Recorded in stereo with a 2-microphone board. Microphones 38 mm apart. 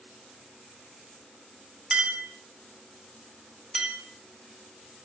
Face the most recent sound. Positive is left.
turn(degrees=-20)  # may be behind; listen again after turning